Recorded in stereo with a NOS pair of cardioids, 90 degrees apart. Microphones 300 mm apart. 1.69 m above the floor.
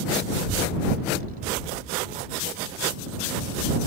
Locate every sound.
0.3 s a child speaking: 40° right; by 3.8 s 15° right